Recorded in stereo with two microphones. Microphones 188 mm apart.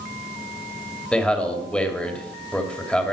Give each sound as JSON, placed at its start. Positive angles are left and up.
{"t": 1.1, "sound": "a man speaking", "side_deg": 5, "distance_m": 2.0}